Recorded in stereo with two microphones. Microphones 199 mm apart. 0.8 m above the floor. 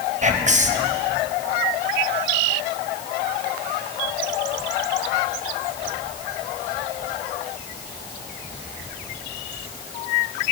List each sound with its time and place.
0.2 s whispering: 35° right (ahead or behind), 0.7 m